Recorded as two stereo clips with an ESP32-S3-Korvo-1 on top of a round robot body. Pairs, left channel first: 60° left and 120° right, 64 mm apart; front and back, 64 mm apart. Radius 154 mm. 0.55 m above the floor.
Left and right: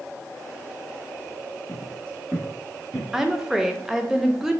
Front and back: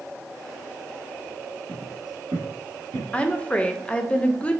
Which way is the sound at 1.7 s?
110° left.